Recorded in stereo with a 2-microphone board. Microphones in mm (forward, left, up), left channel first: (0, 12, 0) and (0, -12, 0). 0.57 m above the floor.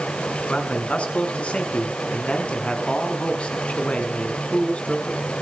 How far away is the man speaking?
About 5.5 m.